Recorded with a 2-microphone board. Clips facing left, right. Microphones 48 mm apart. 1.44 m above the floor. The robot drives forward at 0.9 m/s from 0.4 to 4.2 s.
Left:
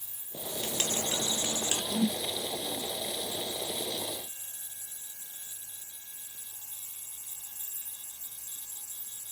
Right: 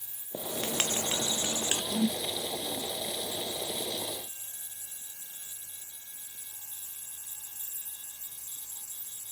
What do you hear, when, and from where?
0.3 s writing: 45° right (ahead or behind), 1.1 m; by 1.8 s 30° right (ahead or behind), 1.4 m
1.9 s a whoosh: 10° left (ahead or behind), 0.7 m; by 2.2 s 5° left (ahead or behind), 0.9 m